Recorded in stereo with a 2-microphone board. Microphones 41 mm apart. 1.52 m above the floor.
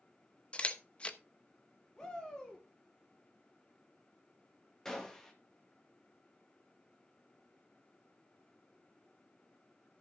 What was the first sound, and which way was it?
A camera shutter, 25° left (ahead or behind).